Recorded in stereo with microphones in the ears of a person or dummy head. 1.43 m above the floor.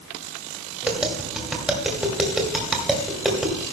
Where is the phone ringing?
I don't hear a phone ringing.